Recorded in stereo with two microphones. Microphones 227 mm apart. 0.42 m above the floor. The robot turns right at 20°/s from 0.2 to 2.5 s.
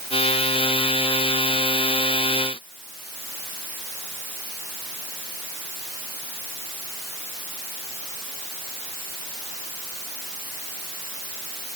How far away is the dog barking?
I don't hear a dog barking.